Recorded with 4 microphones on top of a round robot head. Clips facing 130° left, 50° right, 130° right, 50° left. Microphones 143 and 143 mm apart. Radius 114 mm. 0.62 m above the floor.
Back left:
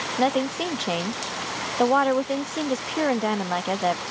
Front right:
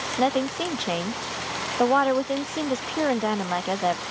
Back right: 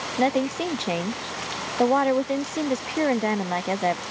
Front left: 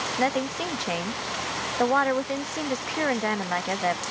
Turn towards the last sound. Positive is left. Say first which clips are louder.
# even, back right 4 dB
turn(degrees=-140)